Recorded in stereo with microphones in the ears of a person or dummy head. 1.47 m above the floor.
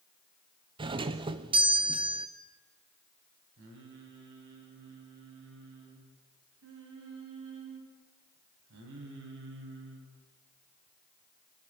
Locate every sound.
0.8 s a doorbell: 30° right (ahead or behind), 1.0 m
3.6 s singing: 70° right (ahead or behind), 6 m